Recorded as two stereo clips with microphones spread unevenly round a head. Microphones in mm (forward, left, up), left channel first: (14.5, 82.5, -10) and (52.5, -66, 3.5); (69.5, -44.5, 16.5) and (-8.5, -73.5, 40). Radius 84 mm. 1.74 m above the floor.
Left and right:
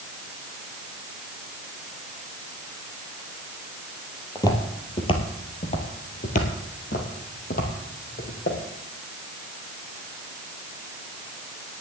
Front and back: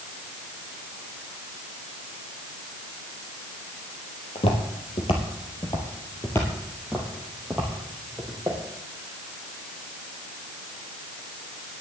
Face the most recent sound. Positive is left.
turn(degrees=140)